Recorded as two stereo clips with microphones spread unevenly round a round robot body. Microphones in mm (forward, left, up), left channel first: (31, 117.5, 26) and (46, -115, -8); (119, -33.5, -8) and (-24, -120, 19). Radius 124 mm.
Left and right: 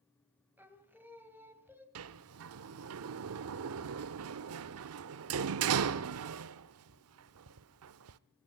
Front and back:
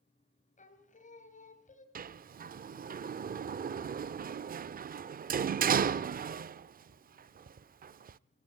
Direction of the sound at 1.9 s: 105° right.